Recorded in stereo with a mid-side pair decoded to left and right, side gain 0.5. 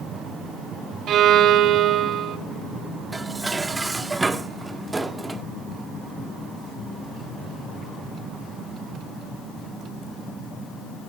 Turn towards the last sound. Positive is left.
turn(degrees=-20)